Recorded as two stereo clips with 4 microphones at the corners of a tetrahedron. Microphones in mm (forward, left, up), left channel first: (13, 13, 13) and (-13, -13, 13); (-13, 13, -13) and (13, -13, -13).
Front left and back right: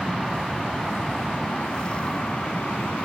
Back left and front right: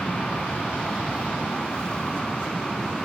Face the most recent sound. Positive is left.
turn(degrees=70)